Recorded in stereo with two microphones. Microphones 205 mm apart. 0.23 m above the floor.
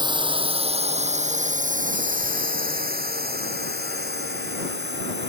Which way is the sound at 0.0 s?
20° right (ahead or behind).